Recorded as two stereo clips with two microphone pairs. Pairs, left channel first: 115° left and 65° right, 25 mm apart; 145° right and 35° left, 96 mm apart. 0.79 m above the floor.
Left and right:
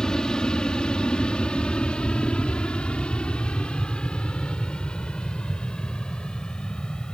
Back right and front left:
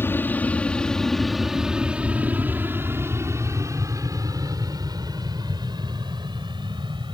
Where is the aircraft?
155° left; by 7.2 s 70° left.